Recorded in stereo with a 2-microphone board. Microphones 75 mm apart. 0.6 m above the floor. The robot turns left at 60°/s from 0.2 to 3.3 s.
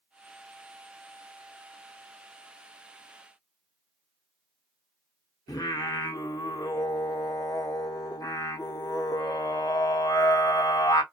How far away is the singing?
About 0.8 m.